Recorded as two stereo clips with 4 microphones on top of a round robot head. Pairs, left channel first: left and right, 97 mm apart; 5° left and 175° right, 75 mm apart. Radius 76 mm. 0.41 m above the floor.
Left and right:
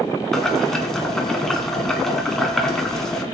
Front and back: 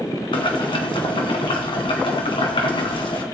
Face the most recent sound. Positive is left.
turn(degrees=5)